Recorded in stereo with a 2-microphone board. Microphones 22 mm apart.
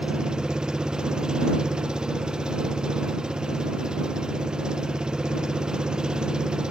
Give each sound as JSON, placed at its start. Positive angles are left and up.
{"t": 0.0, "sound": "an engine running", "side_deg": -35}